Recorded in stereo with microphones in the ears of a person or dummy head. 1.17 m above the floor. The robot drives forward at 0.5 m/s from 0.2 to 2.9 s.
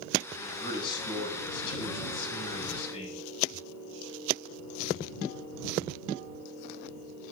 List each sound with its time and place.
0.4 s a man speaking: 30° left (ahead or behind), 8.5 m; by 3.2 s 35° left (ahead or behind), 7.5 m